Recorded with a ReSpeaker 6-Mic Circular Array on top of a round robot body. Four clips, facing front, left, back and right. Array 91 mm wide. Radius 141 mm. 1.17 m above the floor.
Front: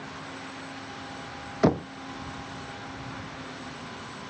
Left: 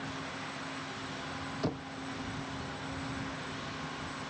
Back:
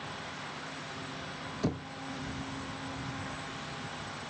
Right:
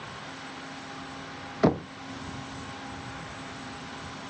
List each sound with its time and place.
1.6 s knocking: 40° right